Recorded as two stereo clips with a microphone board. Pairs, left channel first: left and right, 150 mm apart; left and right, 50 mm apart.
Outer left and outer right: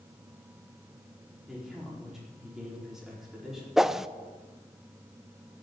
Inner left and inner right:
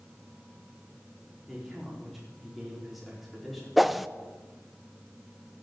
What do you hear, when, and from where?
1.5 s a man speaking: 5° right (ahead or behind), 4.5 m
3.8 s a whoosh: centre (ahead or behind), 0.5 m